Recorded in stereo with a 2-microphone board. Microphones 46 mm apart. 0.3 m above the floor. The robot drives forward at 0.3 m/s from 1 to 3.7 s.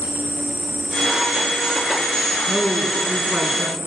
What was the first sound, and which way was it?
An insect, 40° right (ahead or behind).